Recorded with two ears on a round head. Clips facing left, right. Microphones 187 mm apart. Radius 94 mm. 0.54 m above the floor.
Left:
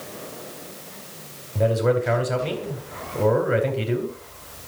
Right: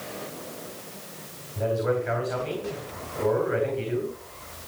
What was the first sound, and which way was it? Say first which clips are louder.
A man speaking: left 5 dB; 70° left (ahead or behind).